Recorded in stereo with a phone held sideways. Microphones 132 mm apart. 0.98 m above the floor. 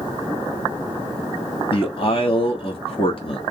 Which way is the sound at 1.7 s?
45° left (ahead or behind).